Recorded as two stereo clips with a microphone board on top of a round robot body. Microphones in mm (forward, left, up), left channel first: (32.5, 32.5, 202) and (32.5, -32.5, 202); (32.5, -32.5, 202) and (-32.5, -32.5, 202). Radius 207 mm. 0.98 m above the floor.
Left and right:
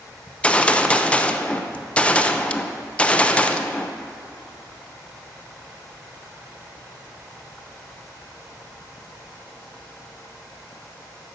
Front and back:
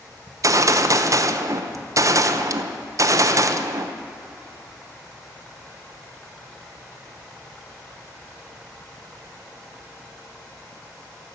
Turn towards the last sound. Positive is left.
turn(degrees=160)